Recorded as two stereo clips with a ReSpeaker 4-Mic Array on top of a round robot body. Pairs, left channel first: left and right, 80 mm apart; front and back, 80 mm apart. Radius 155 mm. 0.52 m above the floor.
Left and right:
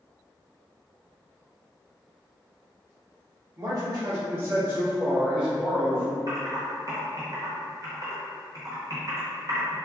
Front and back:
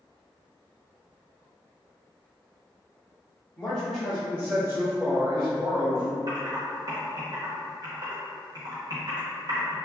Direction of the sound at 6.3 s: 140° right.